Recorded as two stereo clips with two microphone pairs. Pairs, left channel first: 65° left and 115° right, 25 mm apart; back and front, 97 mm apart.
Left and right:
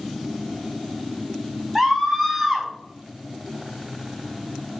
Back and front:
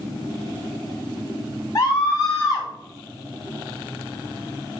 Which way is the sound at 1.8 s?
140° left.